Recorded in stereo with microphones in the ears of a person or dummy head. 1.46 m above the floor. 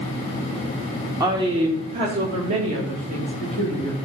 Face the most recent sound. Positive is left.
turn(degrees=-45)  # may be behind; listen again after turning